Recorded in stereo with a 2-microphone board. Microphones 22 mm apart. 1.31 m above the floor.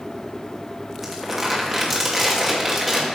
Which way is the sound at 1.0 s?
15° right (ahead or behind).